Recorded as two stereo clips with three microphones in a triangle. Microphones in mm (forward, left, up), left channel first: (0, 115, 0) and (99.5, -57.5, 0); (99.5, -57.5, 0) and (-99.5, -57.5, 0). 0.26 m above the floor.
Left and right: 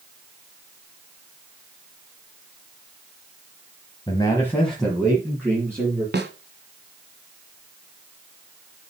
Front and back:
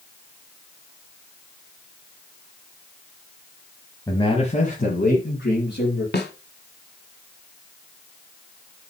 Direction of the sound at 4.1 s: 65° left.